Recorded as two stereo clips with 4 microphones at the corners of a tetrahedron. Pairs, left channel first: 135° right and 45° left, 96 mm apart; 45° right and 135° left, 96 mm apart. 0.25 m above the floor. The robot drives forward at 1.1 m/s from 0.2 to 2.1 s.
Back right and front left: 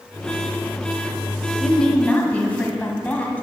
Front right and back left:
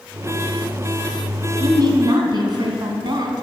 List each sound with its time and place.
1.6 s a woman speaking: 135° left, 1.2 m; by 3.4 s 155° left, 1.5 m